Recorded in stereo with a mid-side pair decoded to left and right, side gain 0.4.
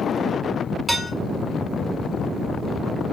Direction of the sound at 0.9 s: 25° right.